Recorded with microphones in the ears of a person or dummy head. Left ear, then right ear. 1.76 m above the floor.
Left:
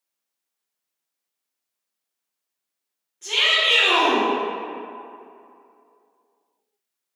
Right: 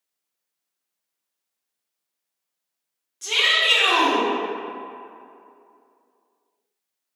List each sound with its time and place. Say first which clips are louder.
3.2 s a shout: even; 55° right (ahead or behind), 1.3 m